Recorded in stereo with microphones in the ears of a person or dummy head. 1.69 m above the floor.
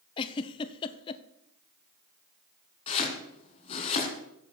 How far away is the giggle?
About 0.8 m.